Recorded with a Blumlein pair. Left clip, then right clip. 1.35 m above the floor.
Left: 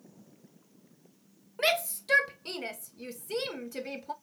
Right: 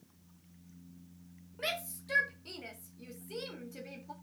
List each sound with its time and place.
1.6 s a shout: 30° left, 1.7 m